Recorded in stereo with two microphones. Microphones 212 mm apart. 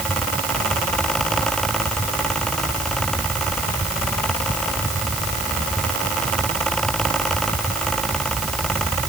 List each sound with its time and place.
Only background noise.